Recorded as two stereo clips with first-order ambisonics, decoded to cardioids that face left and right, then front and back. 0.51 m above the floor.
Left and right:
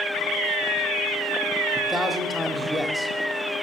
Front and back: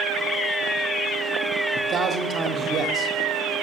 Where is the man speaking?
Straight behind, 0.9 m.